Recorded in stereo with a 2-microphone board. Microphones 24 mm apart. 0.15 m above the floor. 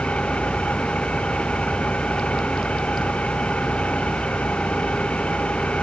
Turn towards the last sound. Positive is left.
turn(degrees=50)  # may be behind; listen again after turning